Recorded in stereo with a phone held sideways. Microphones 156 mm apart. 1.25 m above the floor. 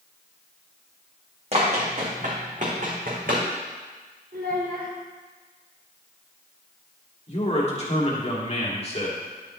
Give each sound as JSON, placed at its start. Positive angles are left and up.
{"t": 1.5, "sound": "running footsteps", "side_deg": -45, "distance_m": 3.5}
{"t": 4.3, "sound": "a child speaking", "side_deg": -80, "distance_m": 2.5}
{"t": 7.3, "sound": "a man speaking", "side_deg": 45, "distance_m": 2.5}